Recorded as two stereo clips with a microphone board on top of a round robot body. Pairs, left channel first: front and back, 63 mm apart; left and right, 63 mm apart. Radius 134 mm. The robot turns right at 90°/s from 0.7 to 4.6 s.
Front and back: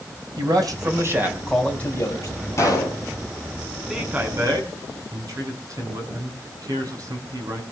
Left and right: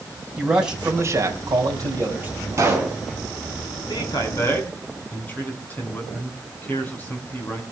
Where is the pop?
45° right, 6 m; by 3.0 s 10° right, 6 m.